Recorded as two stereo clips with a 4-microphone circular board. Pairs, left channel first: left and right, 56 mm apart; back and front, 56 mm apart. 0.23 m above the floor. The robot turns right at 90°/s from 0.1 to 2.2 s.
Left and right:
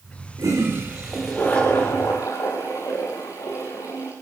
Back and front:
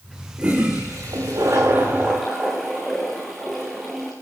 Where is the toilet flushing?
70° right, 9 m; by 4.1 s 90° left, 9 m.